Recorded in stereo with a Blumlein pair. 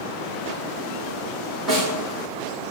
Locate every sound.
1.7 s a snare drum: 10° right, 3.5 m